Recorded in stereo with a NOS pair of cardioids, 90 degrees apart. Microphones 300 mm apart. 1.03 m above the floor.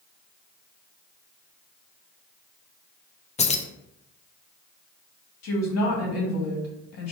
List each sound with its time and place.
3.4 s keys jangling: 20° left, 0.5 m
5.4 s a woman speaking: 60° left, 1.8 m